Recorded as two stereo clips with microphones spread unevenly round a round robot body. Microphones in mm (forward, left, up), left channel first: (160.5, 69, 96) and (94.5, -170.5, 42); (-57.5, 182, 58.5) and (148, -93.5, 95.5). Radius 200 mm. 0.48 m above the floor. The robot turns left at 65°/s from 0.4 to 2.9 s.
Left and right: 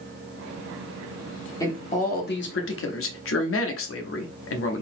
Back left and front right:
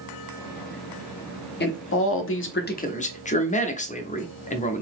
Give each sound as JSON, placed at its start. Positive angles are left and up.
{"t": 1.6, "sound": "a man speaking", "azimuth_deg": 160, "distance_m": 0.9}